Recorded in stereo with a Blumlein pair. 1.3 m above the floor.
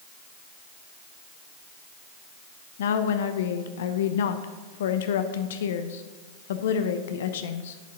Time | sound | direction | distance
2.8 | a woman speaking | 60° left | 0.8 m